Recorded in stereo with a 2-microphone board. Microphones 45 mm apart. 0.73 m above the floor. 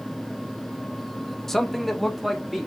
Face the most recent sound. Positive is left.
turn(degrees=-5)  # may be behind; listen again after turning